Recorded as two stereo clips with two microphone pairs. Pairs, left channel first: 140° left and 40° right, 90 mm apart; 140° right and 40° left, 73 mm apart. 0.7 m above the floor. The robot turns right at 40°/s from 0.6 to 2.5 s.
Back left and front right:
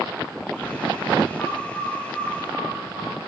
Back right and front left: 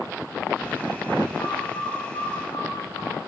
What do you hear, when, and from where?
1.4 s a bird: 165° right, 8.5 m; by 3.1 s 120° right, 8.5 m